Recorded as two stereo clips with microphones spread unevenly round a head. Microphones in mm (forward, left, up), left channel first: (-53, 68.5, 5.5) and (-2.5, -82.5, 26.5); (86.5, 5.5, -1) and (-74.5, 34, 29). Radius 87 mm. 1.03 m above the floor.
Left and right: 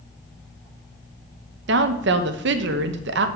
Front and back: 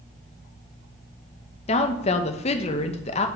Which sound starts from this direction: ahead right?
A woman speaking, at 1.7 s.